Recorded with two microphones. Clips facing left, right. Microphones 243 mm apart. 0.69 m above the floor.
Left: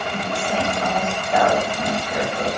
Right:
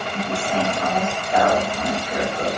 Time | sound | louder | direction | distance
0.1 | a woman speaking | right 2 dB | 15° left (ahead or behind) | 1.6 m